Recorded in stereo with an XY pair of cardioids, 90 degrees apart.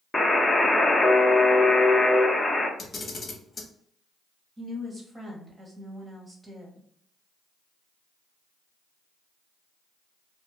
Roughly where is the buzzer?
Ahead.